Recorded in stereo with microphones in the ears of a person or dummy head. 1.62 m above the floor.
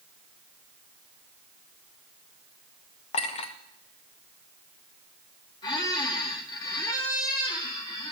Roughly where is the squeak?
Left.